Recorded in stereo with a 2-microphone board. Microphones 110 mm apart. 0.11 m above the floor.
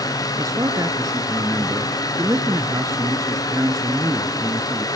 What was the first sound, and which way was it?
A man speaking, 30° right (ahead or behind).